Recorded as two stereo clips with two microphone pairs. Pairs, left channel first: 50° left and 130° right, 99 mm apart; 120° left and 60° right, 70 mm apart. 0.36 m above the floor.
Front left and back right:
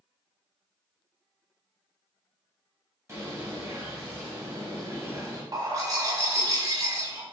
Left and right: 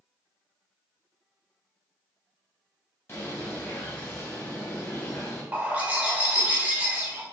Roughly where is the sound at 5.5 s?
Right.